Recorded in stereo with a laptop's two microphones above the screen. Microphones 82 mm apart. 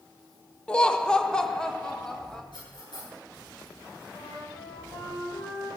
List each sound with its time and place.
0.7 s laughter: 10° left (ahead or behind), 0.8 m; by 2.4 s 5° left (ahead or behind), 2 m
2.5 s cutlery clinking: 70° left (ahead or behind), 9.5 m
4.1 s a flute: 50° left (ahead or behind), 4.5 m